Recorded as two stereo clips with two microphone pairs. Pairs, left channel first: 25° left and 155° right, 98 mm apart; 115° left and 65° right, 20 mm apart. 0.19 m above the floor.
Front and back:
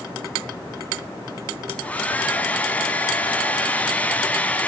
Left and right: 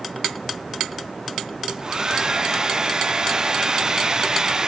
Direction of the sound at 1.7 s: 45° right.